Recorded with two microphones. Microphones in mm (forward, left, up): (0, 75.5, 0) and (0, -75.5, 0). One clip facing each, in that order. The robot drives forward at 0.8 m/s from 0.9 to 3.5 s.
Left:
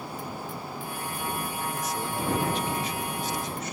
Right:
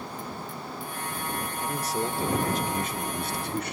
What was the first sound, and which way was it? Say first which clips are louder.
A man speaking: right 2 dB; 30° right (ahead or behind).